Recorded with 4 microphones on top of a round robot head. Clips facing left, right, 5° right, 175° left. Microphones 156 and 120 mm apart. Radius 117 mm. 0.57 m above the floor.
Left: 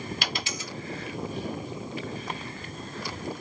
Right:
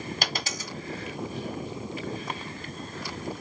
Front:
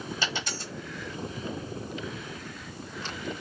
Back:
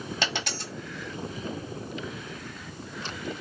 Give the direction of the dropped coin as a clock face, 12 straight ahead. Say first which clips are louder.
Right 1 dB, back 4 dB; 4 o'clock.